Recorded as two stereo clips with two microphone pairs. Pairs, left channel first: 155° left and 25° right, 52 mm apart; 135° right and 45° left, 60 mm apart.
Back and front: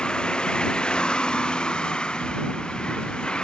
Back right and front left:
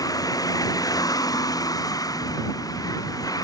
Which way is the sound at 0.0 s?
125° right.